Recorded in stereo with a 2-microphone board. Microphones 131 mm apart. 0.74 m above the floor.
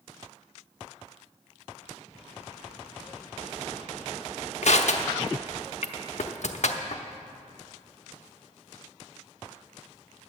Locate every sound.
4.6 s crushing: 60° left (ahead or behind), 0.8 m